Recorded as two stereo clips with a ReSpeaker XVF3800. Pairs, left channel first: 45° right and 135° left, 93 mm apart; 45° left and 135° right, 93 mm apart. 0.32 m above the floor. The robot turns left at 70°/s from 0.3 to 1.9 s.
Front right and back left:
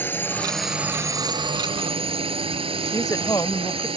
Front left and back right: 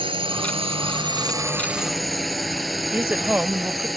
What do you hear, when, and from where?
0.0 s a drone: 115° right; by 4.0 s 135° left
2.9 s a woman speaking: 70° right